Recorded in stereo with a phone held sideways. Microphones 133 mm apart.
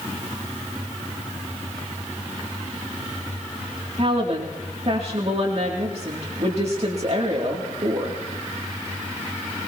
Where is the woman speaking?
50° right (ahead or behind), 2.5 m.